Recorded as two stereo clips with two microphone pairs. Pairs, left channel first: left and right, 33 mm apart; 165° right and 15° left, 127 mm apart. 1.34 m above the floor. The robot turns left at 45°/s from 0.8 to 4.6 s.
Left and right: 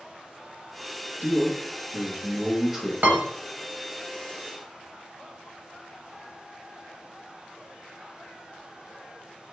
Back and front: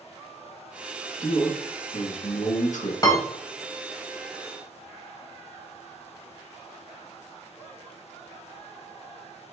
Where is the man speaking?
100° right, 1.0 m; by 2.9 s 175° right, 1.0 m.